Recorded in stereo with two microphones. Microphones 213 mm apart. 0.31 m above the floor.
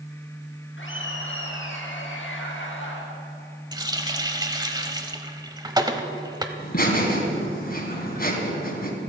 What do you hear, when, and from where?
0.8 s laughter: 70° left (ahead or behind), 4 m; by 3.0 s 65° left (ahead or behind), 5 m
3.7 s a running tap: 20° right (ahead or behind), 1.0 m
6.6 s laughter: 45° left (ahead or behind), 3.5 m